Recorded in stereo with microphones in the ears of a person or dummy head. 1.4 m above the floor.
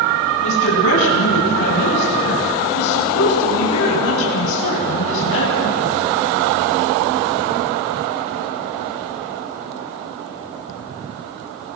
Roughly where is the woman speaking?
Left.